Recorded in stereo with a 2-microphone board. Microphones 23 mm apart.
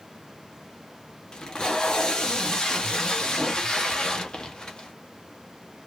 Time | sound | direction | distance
1.3 | tape being pulled | 30° left (ahead or behind) | 0.7 m